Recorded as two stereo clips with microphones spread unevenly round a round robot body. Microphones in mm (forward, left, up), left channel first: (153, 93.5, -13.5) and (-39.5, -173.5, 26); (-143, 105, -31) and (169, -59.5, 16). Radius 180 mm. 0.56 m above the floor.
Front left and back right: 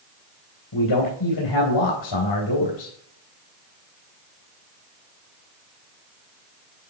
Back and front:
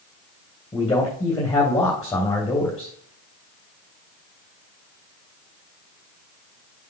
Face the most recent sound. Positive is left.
turn(degrees=75)